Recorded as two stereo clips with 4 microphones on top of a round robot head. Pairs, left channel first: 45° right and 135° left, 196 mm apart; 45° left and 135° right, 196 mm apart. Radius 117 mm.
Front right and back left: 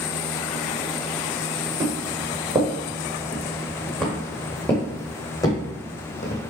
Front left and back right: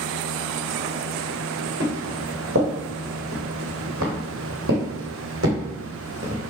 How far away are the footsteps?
About 3 m.